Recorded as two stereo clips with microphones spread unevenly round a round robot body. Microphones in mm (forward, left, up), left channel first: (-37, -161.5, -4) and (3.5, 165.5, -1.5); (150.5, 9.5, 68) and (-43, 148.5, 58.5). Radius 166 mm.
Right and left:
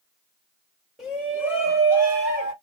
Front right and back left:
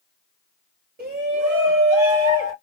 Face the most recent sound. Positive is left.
turn(degrees=160)